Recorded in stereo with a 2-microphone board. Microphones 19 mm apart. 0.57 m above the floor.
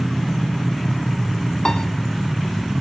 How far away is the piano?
About 0.9 m.